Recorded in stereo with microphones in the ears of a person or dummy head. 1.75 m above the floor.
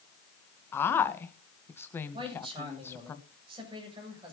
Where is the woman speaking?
15° left (ahead or behind), 1.7 m.